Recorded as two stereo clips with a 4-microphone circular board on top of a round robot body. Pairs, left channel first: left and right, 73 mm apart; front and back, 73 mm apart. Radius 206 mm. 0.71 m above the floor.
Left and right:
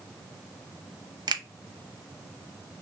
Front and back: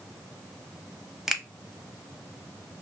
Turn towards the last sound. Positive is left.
turn(degrees=-95)